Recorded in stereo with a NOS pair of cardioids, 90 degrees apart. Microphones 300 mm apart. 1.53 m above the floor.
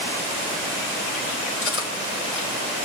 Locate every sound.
1.6 s cutlery clinking: 45° left, 3.5 m